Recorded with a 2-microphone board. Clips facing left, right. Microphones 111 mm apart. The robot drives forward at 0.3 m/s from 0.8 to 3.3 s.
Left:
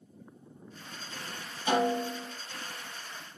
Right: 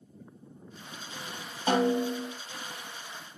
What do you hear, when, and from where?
1.7 s a snare drum: 40° right (ahead or behind), 1.2 m